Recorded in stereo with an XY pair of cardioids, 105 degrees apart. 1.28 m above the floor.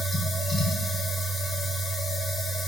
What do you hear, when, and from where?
0.0 s a machine running: 35° left, 0.8 m